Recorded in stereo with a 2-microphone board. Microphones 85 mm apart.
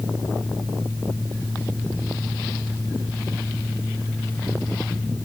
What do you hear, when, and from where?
Only background noise.